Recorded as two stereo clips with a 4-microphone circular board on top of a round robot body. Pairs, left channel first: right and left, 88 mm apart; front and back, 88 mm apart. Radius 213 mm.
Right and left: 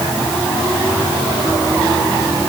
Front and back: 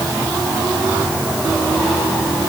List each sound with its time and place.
Only background noise.